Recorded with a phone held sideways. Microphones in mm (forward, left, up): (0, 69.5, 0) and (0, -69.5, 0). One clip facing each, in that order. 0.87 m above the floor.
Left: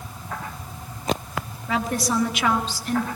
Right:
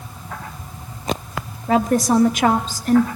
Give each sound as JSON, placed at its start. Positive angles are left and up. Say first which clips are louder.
{"t": 1.7, "sound": "a woman speaking", "louder": "right 8 dB", "side_deg": -45, "distance_m": 1.9}